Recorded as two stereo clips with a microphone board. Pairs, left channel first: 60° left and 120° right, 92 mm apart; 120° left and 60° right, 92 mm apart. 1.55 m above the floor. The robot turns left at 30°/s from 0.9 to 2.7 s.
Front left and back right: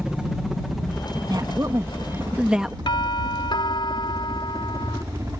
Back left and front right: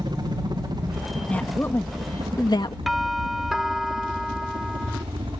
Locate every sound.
0.0 s a helicopter: 40° right; by 5.4 s 65° right
1.3 s a woman speaking: 165° right; by 2.8 s 155° left
2.9 s a doorbell: 30° left